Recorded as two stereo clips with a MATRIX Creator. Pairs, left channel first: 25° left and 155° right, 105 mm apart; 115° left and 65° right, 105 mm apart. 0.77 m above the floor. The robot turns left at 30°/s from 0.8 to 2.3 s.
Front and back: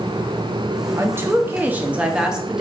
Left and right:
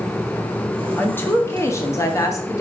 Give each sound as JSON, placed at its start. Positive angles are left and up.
{"t": 1.0, "sound": "a woman speaking", "azimuth_deg": 165, "distance_m": 0.5}